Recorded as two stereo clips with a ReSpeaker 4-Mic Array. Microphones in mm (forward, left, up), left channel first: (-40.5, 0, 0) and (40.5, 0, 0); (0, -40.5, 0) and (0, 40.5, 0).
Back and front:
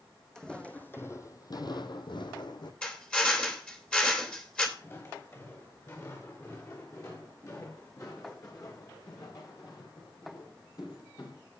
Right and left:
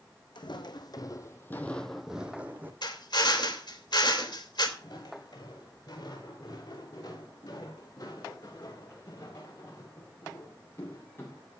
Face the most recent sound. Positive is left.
turn(degrees=-150)